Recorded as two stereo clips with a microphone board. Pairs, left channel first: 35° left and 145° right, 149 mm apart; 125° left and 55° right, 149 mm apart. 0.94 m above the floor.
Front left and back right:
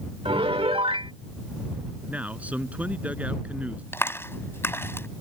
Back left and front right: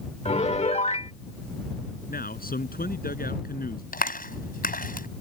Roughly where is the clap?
Left.